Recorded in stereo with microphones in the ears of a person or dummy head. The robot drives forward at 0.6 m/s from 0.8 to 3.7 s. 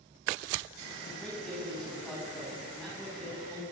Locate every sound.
1.0 s a man speaking: centre (ahead or behind), 9.5 m